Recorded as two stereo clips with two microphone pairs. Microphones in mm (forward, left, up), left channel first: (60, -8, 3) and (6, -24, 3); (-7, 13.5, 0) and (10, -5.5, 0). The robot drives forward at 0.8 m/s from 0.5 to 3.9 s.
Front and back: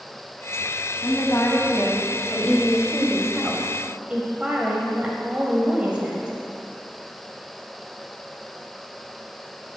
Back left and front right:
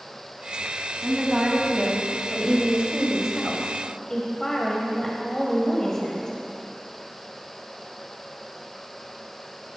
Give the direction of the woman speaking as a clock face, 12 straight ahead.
12 o'clock.